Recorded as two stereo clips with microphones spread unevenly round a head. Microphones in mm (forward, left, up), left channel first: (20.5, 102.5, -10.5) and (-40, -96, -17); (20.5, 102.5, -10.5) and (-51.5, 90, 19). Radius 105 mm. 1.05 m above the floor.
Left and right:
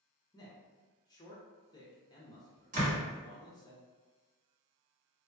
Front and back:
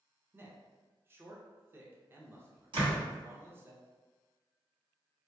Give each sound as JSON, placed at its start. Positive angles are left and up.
{"t": 0.3, "sound": "a man speaking", "azimuth_deg": 120, "distance_m": 0.6}
{"t": 2.7, "sound": "a door slam", "azimuth_deg": -160, "distance_m": 1.5}